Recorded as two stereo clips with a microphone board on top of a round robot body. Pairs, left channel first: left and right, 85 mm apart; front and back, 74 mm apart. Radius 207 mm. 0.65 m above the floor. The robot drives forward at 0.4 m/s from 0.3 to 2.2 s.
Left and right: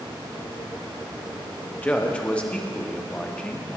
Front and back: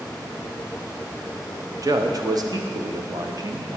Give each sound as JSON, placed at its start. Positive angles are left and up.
{"t": 1.7, "sound": "a man speaking", "azimuth_deg": 160, "distance_m": 0.9}